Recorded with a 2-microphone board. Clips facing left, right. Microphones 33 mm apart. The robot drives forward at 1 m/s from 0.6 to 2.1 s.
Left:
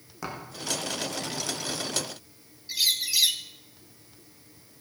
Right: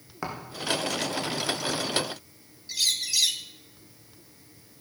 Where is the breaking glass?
I don't hear breaking glass.